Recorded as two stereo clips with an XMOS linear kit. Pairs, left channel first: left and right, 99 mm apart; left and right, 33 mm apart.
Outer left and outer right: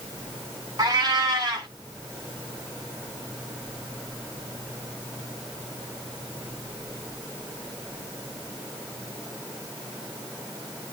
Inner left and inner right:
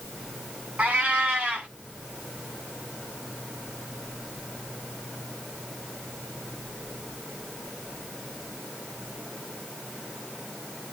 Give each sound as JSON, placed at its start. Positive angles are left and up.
{"t": 0.8, "sound": "a cat meowing", "side_deg": -35, "distance_m": 7.0}